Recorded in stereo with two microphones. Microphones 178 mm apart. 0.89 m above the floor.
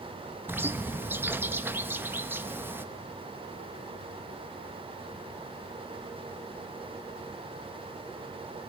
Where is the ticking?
No ticking in this recording.